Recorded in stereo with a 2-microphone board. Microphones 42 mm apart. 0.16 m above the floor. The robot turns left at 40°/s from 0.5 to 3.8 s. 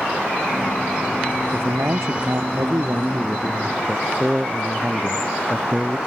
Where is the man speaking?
65° right; by 6.0 s 155° right.